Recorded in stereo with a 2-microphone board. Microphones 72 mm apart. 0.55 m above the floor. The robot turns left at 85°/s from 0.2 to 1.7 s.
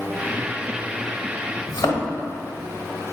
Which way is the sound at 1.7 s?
75° left (ahead or behind).